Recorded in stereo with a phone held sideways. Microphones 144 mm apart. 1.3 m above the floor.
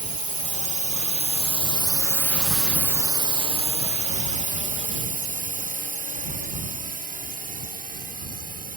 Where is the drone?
65° left (ahead or behind); by 8.8 s 80° right.